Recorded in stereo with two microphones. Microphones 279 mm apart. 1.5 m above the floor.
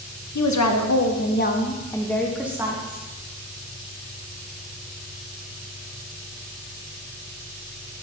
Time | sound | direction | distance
0.3 | a woman speaking | 85° left | 0.8 m